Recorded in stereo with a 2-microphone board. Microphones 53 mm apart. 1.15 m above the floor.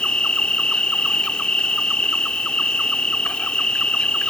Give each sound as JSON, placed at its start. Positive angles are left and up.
{"t": 0.0, "sound": "an insect", "side_deg": 20}